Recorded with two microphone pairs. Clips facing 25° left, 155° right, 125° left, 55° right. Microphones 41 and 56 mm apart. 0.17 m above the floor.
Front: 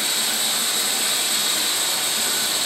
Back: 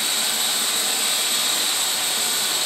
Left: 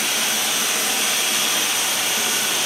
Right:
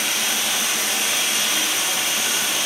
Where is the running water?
145° left, 2.5 m.